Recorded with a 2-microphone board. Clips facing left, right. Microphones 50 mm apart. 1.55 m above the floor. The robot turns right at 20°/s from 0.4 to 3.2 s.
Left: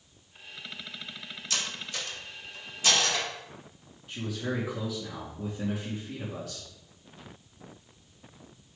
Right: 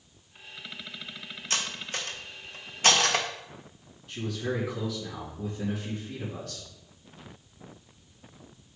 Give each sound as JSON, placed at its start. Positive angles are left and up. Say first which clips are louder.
{"t": 1.5, "sound": "cutlery clinking", "louder": "right 2 dB", "side_deg": -35, "distance_m": 1.1}
{"t": 4.1, "sound": "a man speaking", "louder": "right 1 dB", "side_deg": 15, "distance_m": 2.5}